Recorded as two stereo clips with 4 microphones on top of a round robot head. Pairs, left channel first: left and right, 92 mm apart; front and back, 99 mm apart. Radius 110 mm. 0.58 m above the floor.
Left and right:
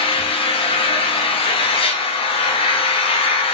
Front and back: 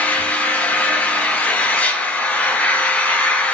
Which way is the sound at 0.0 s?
80° left.